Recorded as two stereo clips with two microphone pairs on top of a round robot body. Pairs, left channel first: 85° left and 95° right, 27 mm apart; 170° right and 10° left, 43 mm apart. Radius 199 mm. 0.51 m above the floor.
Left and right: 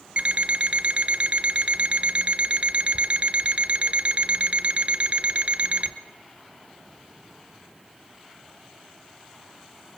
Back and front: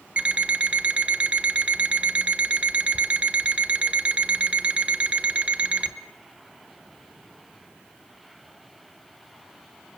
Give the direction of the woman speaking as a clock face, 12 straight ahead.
No woman speaking in this recording.